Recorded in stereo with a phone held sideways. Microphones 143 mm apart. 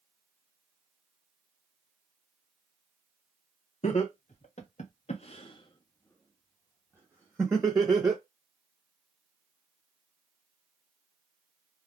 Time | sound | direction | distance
3.8 | laughter | 50° left (ahead or behind) | 1.1 m